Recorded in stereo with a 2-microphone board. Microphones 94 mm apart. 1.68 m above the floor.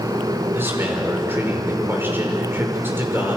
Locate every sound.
0.5 s a man speaking: 20° right (ahead or behind), 5.5 m